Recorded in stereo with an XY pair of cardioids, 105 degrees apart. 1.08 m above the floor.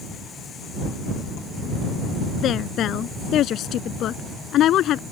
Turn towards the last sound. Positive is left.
turn(degrees=75)